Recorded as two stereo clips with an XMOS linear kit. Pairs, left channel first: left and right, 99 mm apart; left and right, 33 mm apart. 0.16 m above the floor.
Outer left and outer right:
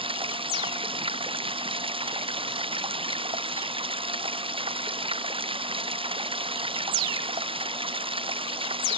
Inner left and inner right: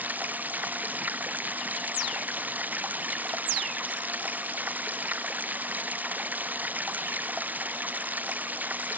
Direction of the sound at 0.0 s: 65° right (ahead or behind).